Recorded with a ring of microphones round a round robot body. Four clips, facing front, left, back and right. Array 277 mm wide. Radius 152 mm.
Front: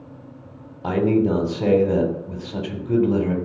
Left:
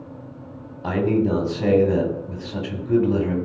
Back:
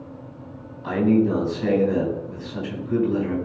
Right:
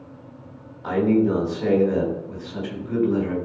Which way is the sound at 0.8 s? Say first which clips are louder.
Right 1 dB, even; 35° left.